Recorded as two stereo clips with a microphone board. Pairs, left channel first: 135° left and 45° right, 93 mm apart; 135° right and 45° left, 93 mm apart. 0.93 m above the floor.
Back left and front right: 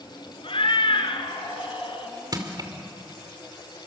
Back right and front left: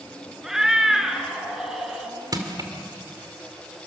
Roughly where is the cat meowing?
Behind left.